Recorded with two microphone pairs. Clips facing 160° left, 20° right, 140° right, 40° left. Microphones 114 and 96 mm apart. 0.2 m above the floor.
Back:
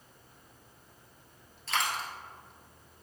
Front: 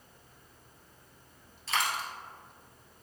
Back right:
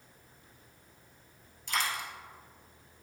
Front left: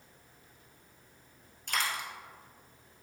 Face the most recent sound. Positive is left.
turn(degrees=70)